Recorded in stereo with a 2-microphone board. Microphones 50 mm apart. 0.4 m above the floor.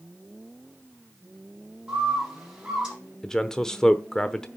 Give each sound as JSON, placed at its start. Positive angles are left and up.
{"t": 1.9, "sound": "a bird", "side_deg": -15, "distance_m": 5.5}
{"t": 3.2, "sound": "a man speaking", "side_deg": 10, "distance_m": 0.8}